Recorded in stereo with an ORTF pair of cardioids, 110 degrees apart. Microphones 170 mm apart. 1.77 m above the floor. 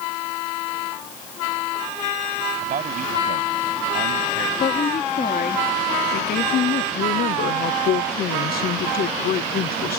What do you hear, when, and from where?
2.6 s a man speaking: 55° right
4.6 s a woman speaking: 70° left
7.0 s a woman speaking: 65° left